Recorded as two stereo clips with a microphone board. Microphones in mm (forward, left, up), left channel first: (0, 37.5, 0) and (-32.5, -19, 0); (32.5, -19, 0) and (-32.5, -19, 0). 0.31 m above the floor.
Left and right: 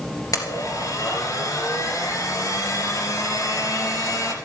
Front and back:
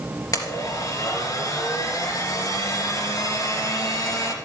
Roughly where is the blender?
Ahead left.